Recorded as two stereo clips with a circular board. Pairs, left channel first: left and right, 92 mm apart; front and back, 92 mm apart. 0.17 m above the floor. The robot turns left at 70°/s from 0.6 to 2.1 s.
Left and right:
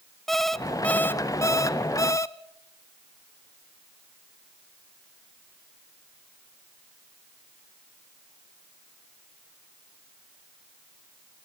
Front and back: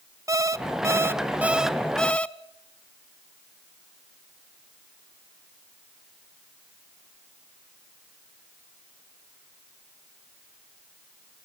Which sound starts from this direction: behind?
An alarm clock, at 0.3 s.